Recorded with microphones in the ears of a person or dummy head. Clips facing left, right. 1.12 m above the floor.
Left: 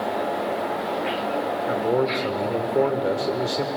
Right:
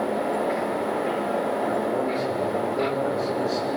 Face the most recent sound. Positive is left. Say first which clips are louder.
# left 2 dB
turn(degrees=60)  # may be behind; listen again after turning